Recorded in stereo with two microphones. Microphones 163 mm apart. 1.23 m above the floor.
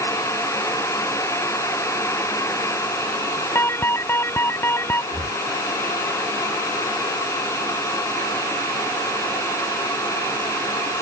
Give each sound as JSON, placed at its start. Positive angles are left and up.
{"t": 3.5, "sound": "an alarm", "side_deg": 15}
{"t": 5.1, "sound": "breathing", "side_deg": -60}